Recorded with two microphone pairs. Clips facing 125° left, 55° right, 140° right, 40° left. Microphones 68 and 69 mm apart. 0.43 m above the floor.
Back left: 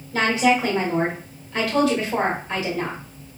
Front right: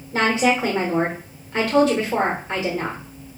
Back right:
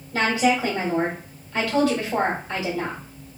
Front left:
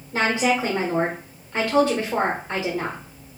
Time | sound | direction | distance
0.1 | a woman speaking | 15° right | 1.0 m